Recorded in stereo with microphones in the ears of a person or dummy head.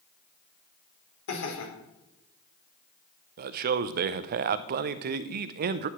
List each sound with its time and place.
1.3 s laughter: 85° left, 3.5 m
3.4 s a man speaking: 40° right (ahead or behind), 0.5 m